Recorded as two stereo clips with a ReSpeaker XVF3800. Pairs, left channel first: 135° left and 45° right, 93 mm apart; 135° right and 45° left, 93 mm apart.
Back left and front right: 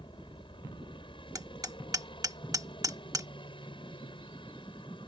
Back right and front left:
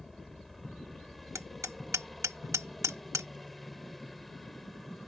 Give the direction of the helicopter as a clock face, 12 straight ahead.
7 o'clock.